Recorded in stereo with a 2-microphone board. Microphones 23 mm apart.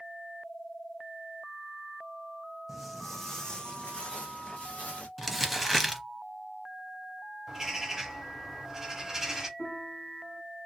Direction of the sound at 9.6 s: 30° left (ahead or behind).